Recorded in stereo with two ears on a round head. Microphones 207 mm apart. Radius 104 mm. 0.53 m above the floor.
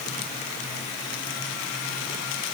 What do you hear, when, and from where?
Only background noise.